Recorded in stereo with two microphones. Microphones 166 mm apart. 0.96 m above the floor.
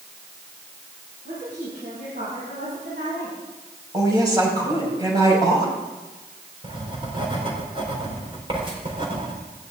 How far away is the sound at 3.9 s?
About 6 m.